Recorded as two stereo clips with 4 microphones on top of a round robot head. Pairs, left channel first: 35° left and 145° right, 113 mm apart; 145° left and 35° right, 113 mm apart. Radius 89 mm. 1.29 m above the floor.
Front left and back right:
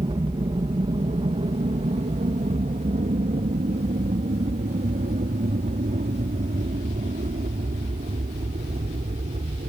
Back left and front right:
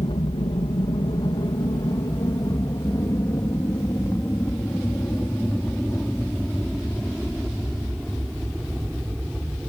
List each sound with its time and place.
0.0 s an aircraft: 175° left; by 9.7 s 125° right